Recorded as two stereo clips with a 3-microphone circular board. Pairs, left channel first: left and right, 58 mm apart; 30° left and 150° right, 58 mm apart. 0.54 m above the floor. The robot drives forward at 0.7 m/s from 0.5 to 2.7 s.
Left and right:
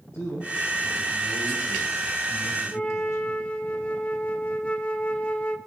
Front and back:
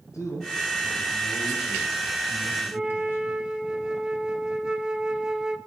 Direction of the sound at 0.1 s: 55° left.